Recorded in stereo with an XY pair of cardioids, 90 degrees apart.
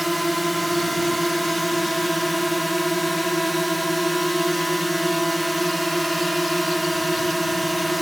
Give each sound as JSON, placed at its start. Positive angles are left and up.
{"t": 0.0, "sound": "a drone", "azimuth_deg": -5}